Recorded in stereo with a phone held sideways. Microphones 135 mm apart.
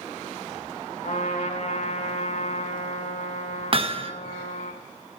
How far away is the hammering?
About 1.2 m.